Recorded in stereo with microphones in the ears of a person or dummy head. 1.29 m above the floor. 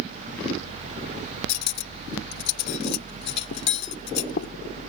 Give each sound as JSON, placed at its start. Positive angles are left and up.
{"t": 1.5, "sound": "cutlery clinking", "side_deg": 55}